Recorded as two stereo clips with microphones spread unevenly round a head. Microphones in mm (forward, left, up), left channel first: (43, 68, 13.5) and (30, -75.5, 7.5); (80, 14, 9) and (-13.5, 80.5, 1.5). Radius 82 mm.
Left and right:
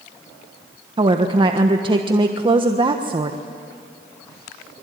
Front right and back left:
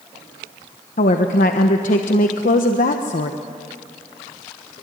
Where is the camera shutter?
No camera shutter in this recording.